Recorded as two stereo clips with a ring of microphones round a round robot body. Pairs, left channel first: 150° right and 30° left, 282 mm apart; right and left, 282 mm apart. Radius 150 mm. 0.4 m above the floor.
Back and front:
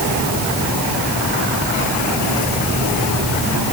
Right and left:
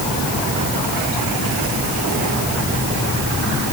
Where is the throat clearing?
No throat clearing in this recording.